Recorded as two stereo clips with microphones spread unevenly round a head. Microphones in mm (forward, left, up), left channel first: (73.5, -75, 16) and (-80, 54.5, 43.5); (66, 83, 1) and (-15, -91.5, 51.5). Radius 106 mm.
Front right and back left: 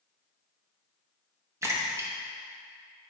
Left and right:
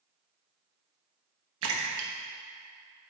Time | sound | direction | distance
1.6 | a splash | 140° right | 1.0 m